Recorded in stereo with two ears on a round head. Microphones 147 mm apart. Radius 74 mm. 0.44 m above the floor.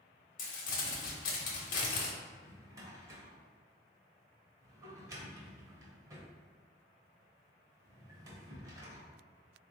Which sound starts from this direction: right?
A drawer, at 2.2 s.